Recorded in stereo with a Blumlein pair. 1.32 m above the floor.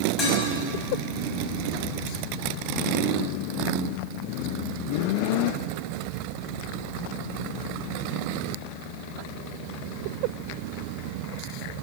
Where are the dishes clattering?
25° left, 6 m.